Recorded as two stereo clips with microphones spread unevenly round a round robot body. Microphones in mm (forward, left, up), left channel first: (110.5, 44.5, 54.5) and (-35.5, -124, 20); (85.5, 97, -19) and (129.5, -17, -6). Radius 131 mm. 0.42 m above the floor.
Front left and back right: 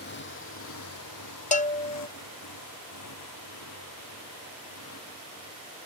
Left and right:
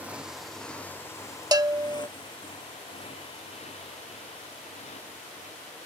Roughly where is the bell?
Ahead.